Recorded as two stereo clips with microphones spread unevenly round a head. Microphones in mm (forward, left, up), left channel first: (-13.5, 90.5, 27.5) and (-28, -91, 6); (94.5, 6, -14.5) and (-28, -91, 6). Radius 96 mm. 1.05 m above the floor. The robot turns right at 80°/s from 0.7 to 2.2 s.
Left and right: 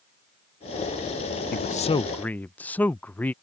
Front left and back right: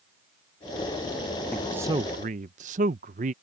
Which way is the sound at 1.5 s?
115° left.